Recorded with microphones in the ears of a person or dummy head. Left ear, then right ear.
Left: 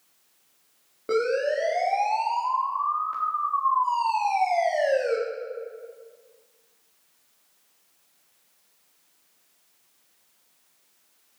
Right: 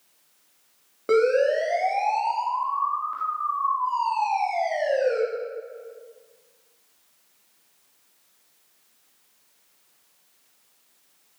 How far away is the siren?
About 3.5 m.